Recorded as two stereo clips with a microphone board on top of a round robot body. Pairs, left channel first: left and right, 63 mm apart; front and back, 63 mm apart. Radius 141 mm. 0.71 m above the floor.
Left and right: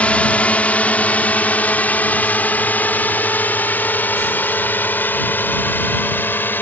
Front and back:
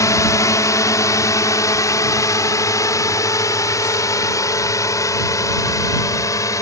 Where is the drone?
25° left; by 6.6 s 35° left.